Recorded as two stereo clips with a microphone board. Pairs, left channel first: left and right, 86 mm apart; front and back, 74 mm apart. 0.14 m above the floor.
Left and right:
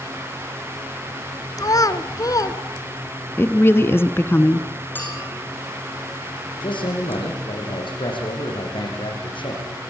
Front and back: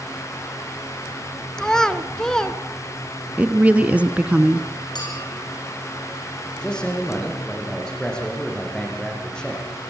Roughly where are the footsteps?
No footsteps in this recording.